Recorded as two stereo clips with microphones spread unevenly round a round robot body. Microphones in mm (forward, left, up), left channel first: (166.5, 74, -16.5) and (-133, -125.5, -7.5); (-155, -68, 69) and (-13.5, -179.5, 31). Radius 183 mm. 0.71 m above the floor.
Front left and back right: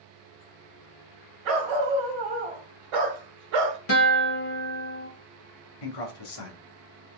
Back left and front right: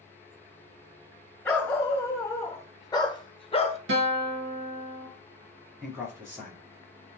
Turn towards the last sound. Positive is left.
turn(degrees=35)